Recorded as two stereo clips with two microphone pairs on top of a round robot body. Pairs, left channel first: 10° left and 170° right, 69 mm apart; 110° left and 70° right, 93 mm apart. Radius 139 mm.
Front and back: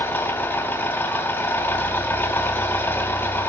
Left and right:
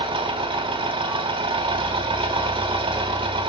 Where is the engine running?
45° right, 3.5 m.